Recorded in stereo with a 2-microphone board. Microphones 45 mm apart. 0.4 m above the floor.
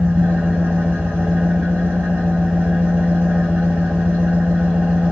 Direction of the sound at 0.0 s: 40° right (ahead or behind).